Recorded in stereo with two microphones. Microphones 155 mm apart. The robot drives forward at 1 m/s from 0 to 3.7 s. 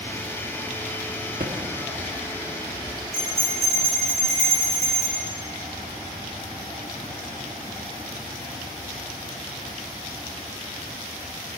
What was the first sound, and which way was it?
Typing on a keyboard, 65° right (ahead or behind).